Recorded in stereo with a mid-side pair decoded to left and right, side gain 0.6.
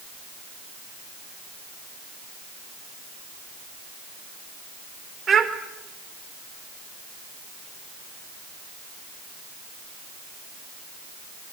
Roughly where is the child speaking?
Ahead right.